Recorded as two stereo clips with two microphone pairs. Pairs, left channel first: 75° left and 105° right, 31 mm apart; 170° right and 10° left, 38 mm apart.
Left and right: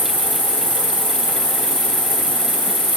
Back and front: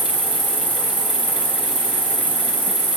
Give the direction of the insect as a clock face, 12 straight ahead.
4 o'clock.